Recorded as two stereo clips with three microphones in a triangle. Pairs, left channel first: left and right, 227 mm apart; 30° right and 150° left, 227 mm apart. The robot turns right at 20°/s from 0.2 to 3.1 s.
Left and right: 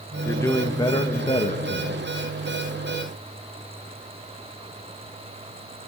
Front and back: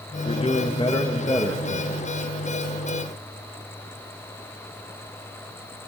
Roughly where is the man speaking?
Ahead.